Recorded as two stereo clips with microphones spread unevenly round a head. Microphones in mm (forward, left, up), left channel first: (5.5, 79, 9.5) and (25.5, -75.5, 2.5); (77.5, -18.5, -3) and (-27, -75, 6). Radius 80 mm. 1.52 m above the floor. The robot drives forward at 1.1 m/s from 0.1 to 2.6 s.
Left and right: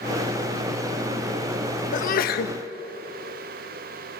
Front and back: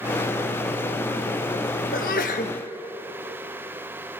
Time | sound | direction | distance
1.9 | a sneeze | 60° left | 1.8 m